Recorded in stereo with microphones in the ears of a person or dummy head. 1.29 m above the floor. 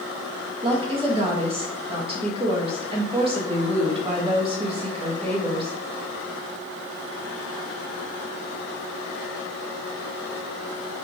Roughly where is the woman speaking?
Right.